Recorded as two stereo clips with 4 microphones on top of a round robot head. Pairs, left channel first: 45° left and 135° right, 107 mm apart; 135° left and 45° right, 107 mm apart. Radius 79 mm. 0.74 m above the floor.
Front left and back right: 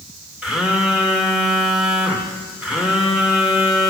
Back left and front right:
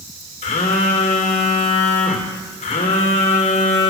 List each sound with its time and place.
0.4 s a phone buzzing: 140° left, 2.5 m